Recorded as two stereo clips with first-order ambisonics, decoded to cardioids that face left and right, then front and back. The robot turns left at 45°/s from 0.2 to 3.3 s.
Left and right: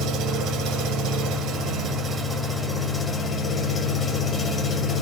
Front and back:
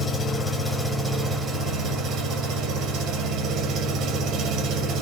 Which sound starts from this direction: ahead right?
An engine running, at 0.0 s.